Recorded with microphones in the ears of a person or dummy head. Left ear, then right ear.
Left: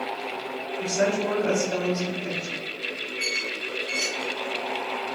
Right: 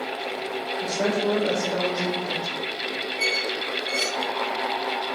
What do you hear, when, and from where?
0.8 s a woman speaking: 50° left (ahead or behind), 1.5 m
3.2 s a squeak: 25° right (ahead or behind), 1.1 m